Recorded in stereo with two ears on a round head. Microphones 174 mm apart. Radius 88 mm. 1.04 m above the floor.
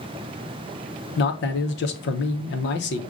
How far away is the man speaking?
About 0.7 m.